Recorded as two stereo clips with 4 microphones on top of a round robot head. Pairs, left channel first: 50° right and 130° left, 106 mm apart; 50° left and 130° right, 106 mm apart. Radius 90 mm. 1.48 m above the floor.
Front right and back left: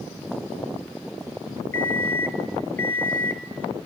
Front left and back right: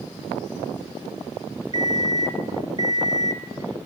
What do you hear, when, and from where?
1.7 s an alarm clock: 110° right, 0.6 m